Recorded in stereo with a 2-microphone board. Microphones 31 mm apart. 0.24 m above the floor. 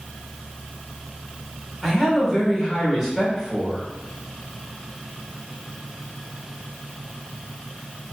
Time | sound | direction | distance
1.8 | a man speaking | 15° right (ahead or behind) | 1.9 m